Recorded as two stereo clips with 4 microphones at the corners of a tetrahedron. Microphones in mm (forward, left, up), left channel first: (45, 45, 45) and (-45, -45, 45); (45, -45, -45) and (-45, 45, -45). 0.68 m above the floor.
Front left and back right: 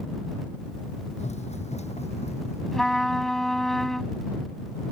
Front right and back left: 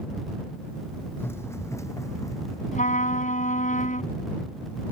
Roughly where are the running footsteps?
Ahead left.